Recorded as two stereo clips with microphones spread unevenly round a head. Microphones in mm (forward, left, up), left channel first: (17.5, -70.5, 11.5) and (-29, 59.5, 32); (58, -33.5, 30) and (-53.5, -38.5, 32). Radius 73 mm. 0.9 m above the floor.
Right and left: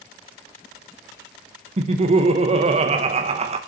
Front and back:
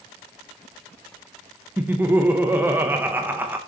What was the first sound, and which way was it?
Laughter, 120° left.